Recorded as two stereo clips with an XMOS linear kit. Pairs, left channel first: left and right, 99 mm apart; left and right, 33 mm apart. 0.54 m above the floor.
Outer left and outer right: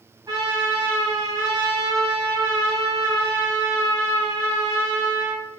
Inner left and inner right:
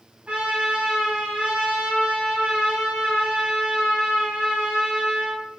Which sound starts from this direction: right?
A trumpet, at 0.3 s.